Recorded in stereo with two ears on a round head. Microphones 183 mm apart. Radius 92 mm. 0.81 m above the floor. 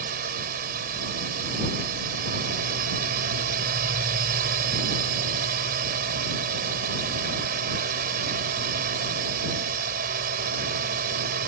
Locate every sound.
0.0 s a drone: 45° right (ahead or behind)